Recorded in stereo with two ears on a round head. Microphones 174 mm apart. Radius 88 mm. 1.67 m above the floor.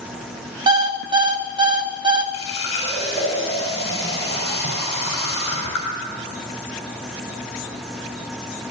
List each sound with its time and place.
0.7 s an alarm clock: 20° right (ahead or behind), 1.1 m
2.3 s a running tap: 30° left (ahead or behind), 6 m